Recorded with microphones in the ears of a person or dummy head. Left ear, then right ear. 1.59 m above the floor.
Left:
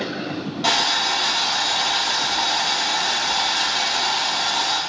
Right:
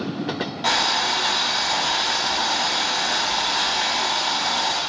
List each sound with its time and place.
0.6 s boiling: 5° left (ahead or behind), 1.5 m